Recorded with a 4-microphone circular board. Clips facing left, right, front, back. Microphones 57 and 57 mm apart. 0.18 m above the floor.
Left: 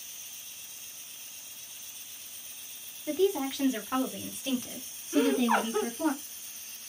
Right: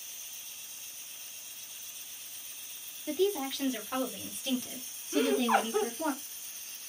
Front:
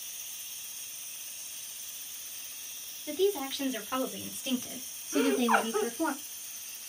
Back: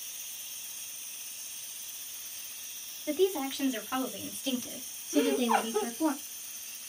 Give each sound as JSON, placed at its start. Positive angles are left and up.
{"t": 3.1, "sound": "a woman speaking", "azimuth_deg": 150, "distance_m": 1.2}
{"t": 5.1, "sound": "laughter", "azimuth_deg": -10, "distance_m": 2.0}